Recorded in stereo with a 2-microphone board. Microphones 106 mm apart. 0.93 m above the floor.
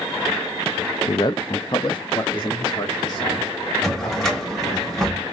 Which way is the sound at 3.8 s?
5° left (ahead or behind).